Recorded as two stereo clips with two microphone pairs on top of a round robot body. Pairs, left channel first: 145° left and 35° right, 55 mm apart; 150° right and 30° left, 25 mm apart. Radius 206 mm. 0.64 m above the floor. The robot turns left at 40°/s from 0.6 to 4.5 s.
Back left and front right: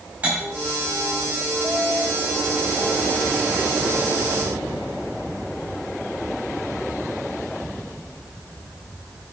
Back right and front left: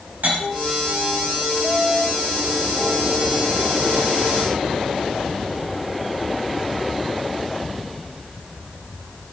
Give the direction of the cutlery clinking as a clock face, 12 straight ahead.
11 o'clock.